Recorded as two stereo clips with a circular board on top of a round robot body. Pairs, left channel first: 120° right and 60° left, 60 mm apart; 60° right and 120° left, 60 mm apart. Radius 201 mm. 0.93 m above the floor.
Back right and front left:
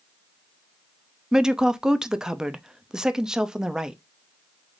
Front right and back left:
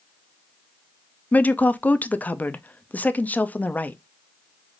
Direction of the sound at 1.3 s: 15° right.